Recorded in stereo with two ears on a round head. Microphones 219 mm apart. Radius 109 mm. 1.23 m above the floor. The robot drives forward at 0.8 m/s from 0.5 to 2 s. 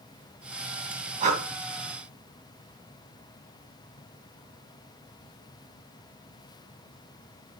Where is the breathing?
30° right (ahead or behind), 2.0 m.